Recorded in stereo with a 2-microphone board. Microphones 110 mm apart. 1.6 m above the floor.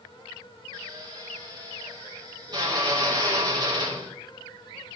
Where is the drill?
40° right (ahead or behind), 4 m.